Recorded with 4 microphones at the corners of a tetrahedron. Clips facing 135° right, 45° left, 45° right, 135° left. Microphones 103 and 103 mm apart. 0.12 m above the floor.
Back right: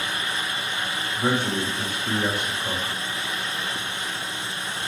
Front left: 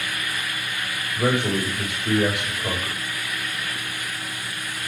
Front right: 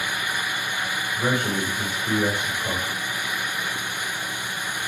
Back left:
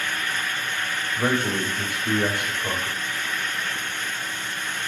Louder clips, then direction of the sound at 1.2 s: Front left 2 dB, back left 1 dB; 65° left.